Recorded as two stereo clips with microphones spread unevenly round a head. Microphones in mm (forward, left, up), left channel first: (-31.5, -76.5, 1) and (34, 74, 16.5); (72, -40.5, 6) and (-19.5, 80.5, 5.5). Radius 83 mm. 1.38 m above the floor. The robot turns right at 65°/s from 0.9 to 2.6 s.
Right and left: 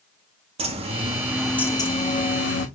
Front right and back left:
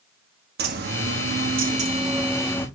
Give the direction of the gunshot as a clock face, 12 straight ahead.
I don't hear a gunshot.